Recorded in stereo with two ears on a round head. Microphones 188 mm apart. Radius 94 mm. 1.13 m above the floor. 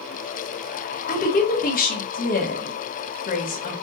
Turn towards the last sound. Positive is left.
turn(degrees=40)  # may be behind; listen again after turning